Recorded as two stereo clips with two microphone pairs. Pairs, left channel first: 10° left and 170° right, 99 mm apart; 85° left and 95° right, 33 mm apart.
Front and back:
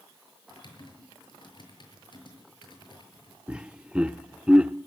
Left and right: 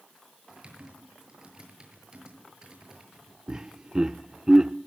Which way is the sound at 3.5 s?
115° right.